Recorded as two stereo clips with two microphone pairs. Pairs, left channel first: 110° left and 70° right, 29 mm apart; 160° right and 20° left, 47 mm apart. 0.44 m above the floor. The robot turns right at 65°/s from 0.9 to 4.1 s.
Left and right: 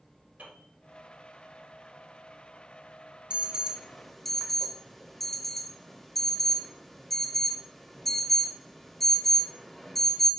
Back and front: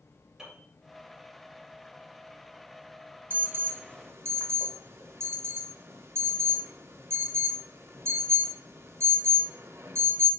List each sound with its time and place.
0.4 s a piano: 65° right, 4 m
3.3 s an alarm: 20° right, 0.9 m; by 10.3 s 30° left, 0.9 m